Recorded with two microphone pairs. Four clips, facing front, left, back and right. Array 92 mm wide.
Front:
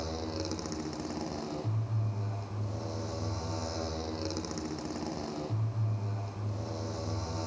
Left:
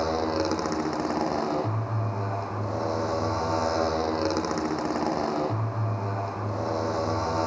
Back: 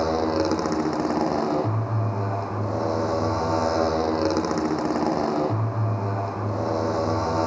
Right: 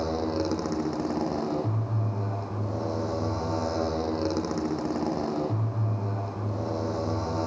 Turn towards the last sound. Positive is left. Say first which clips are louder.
# left 2 dB, back 15 dB
turn(degrees=145)